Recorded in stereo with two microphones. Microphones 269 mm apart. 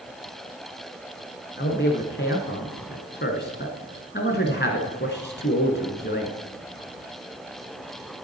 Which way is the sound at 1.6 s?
40° left (ahead or behind).